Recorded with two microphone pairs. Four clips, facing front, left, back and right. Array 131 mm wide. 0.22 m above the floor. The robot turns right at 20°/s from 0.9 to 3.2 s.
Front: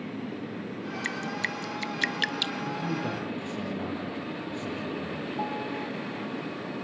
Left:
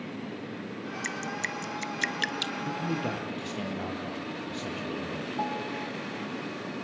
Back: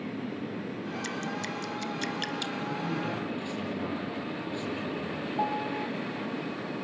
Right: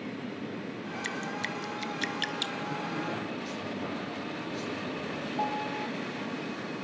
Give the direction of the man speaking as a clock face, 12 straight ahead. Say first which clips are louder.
Left 4 dB, front 1 dB; 10 o'clock.